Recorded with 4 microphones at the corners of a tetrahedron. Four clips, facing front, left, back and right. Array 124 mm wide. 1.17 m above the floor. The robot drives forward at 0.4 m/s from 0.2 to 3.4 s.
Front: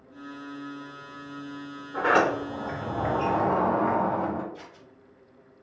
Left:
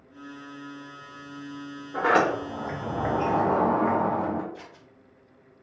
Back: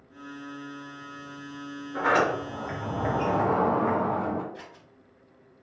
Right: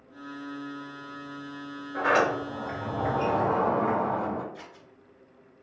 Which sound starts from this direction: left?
A sliding door, at 1.9 s.